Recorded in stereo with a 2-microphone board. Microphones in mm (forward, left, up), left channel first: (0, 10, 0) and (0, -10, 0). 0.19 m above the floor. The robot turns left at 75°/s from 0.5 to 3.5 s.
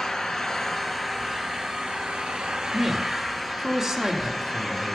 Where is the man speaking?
10° right (ahead or behind), 1.1 m; by 5.0 s 20° right (ahead or behind), 1.1 m.